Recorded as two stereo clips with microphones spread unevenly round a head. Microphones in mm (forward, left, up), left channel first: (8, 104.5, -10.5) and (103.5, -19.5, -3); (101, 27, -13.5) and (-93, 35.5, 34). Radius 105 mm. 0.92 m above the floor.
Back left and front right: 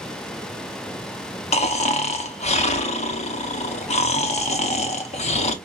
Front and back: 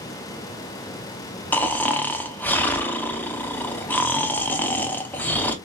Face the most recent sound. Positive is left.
turn(degrees=85)